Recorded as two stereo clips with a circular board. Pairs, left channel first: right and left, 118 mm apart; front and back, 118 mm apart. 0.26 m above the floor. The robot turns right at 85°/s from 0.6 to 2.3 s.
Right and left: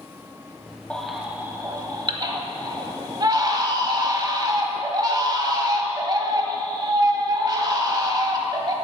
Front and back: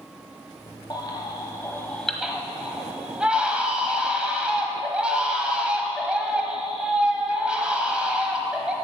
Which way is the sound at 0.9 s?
15° right.